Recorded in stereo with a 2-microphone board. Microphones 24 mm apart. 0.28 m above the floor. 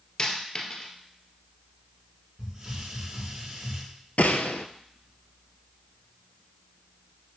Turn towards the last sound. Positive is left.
turn(degrees=80)